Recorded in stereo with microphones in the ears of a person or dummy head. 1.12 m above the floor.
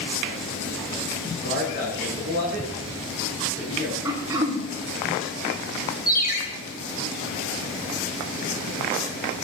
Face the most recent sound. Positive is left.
turn(degrees=40)  # may be behind; listen again after turning